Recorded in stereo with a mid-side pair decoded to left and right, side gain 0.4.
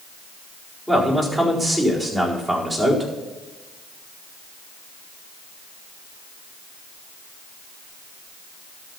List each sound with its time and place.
0.9 s a man speaking: 15° right, 4.5 m